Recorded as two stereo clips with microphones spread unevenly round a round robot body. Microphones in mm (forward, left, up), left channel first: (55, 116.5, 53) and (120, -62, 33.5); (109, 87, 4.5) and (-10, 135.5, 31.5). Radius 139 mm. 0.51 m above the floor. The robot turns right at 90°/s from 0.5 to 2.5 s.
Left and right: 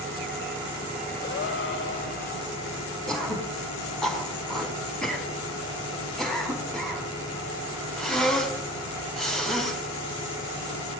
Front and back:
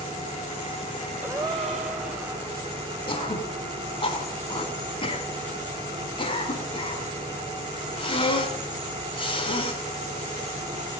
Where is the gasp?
80° left, 2.5 m; by 2.3 s 175° left, 2.5 m.